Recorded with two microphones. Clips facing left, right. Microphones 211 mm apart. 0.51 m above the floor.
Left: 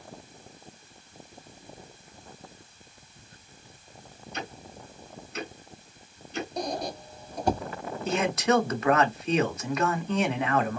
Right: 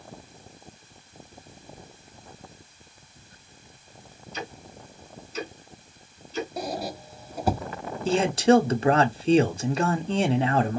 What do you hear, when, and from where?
4.3 s ticking: 60° left (ahead or behind), 2 m
6.6 s a squeak: 5° right (ahead or behind), 0.5 m
8.1 s a man speaking: 30° right (ahead or behind), 0.9 m